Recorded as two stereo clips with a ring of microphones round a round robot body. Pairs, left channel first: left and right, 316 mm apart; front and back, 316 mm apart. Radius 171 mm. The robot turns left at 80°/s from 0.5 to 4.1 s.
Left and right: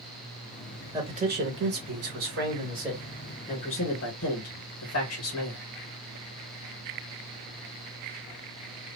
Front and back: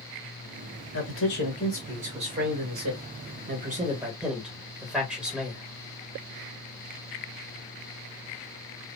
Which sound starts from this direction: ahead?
A man speaking, at 0.9 s.